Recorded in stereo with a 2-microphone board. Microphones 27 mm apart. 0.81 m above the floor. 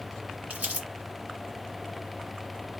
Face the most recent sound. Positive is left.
turn(degrees=-60)  # may be behind; listen again after turning